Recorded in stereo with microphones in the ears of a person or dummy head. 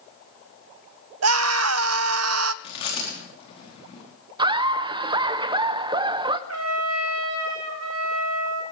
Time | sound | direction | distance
1.2 | a scream | 85° right | 0.6 m
2.6 | chewing | 35° left (ahead or behind) | 4.5 m
4.4 | laughter | 25° right (ahead or behind) | 0.8 m
6.5 | a trumpet | 75° right (ahead or behind) | 1.5 m